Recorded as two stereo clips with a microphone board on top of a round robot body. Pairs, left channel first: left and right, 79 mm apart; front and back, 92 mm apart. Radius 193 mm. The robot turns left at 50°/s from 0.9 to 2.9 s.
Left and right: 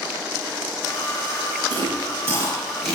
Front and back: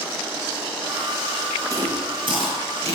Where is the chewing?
120° right, 4.5 m; by 3.0 s straight behind, 4.5 m.